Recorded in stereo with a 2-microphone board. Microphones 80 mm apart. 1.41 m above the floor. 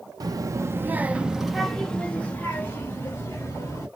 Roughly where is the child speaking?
Right.